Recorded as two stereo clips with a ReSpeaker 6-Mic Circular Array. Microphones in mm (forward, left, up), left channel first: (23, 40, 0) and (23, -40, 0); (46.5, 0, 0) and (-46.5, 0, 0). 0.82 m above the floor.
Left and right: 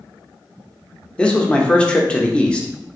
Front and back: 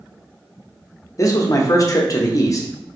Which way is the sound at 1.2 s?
20° left.